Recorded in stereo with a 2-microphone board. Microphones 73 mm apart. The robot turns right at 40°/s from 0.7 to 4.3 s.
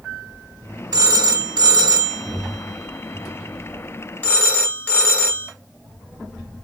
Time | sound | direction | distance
0.9 | a phone ringing | 60° right (ahead or behind) | 1.4 m